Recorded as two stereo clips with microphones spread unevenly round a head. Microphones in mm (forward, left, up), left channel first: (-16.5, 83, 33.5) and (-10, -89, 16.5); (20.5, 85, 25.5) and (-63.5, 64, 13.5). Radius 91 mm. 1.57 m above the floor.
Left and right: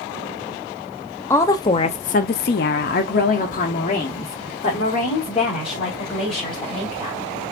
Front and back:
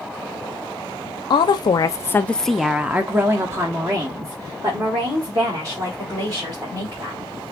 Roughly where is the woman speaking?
Ahead.